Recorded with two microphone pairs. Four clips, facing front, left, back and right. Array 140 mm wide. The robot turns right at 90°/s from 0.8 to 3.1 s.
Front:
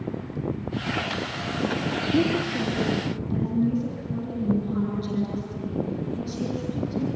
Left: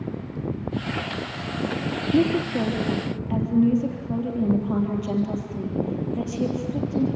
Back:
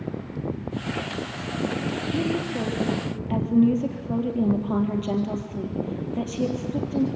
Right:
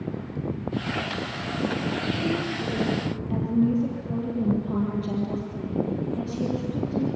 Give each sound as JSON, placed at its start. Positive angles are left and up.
{"t": 2.1, "sound": "a woman speaking", "azimuth_deg": 70, "distance_m": 3.5}